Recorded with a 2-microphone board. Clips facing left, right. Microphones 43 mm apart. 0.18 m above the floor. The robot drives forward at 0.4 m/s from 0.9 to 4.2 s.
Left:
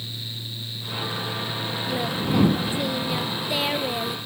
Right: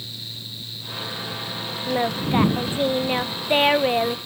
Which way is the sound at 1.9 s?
35° right (ahead or behind).